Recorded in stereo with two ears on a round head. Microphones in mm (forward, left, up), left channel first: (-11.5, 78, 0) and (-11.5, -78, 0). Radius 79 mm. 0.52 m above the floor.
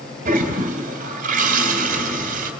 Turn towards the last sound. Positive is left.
turn(degrees=-50)  # may be behind; listen again after turning